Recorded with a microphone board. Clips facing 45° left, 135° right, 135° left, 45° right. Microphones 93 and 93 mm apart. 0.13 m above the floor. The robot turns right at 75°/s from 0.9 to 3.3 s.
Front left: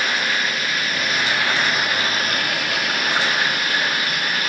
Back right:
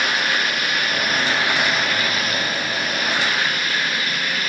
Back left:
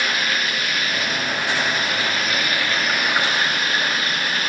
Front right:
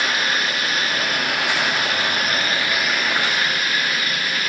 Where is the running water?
105° right, 6 m; by 4.5 s 75° left, 6 m.